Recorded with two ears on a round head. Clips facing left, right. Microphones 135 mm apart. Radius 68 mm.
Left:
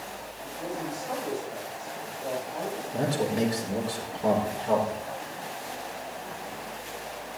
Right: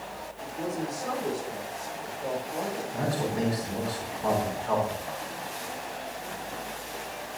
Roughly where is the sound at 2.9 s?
Left.